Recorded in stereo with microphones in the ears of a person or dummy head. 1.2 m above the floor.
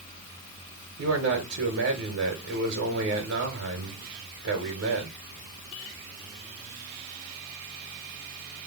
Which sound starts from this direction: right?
A man speaking, at 1.0 s.